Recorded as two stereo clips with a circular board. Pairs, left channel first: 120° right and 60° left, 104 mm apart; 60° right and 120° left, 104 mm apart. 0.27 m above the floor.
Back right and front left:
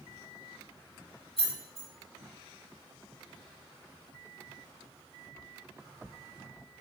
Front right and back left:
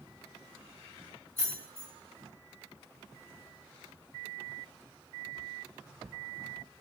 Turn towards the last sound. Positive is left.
turn(degrees=-130)